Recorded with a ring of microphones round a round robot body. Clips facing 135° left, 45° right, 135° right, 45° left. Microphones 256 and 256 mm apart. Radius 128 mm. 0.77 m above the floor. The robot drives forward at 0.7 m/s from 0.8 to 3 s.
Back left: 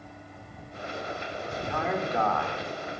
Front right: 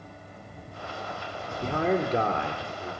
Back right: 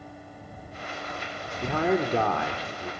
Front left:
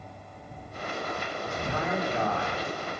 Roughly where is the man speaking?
Right.